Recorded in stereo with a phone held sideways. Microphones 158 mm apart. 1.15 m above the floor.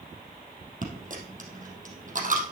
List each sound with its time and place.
0.8 s a dropped coin: 55° right (ahead or behind), 3 m